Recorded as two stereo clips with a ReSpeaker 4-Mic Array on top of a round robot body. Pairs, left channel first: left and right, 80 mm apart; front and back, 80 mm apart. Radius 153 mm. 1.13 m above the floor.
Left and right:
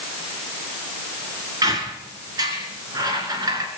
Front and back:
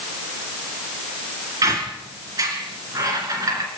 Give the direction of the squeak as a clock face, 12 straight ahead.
4 o'clock.